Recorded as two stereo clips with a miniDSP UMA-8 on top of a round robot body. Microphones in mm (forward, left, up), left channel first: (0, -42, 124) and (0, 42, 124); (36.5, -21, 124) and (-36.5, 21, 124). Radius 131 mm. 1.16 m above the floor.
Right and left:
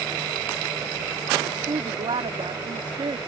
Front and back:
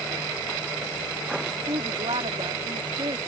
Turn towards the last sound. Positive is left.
turn(degrees=120)